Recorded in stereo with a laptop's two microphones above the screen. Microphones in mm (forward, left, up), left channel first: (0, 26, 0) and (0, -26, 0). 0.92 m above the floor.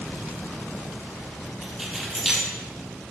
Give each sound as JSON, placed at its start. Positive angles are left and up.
{"t": 1.6, "sound": "keys jangling", "side_deg": -5, "distance_m": 1.2}